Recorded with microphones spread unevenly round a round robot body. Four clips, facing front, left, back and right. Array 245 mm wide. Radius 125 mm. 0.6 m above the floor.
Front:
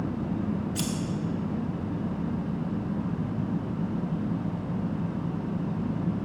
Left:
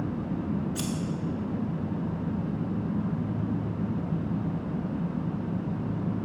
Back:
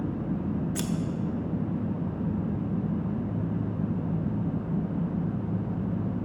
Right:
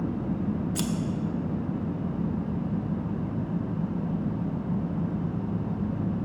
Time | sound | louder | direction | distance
0.8 | scissors | right 3 dB, front 1 dB | 125° right | 0.9 m